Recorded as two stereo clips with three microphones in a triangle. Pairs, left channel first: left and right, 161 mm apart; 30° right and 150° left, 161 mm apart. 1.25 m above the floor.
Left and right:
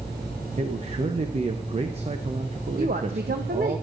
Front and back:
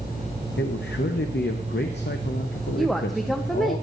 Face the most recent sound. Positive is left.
turn(degrees=-120)